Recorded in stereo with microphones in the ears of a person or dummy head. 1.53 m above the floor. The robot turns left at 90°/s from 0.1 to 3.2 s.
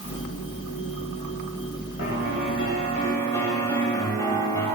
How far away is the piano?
About 9.5 m.